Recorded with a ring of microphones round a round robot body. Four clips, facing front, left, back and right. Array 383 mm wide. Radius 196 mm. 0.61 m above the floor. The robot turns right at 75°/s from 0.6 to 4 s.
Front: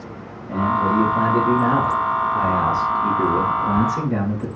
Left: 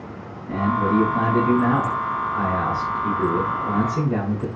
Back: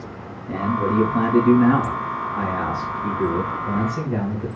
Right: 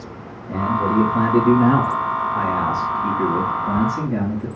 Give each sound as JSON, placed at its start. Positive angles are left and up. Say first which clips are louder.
{"t": 0.5, "sound": "a man speaking", "louder": "right 1 dB, front 3 dB", "azimuth_deg": 180, "distance_m": 5.5}